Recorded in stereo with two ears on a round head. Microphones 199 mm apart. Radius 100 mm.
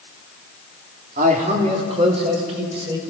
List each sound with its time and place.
1.2 s a man speaking: 35° right (ahead or behind), 3 m; by 3.0 s 25° right (ahead or behind), 5.5 m